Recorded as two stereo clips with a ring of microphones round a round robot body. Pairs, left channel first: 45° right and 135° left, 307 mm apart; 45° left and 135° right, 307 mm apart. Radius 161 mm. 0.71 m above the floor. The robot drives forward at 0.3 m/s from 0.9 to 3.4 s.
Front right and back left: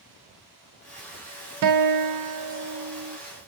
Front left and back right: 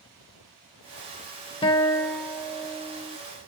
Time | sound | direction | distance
1.6 | a guitar | 115° left | 0.5 m